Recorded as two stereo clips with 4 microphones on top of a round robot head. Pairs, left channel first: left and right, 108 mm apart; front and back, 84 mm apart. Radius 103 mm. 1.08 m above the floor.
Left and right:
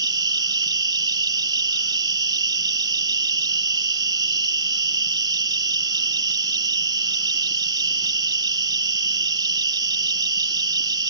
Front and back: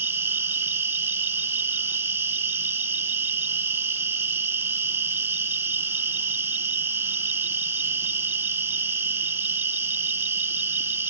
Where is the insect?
115° right.